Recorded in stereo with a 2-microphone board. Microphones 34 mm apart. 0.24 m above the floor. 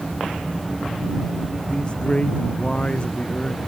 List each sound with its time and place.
1.7 s a man speaking: 30° left (ahead or behind)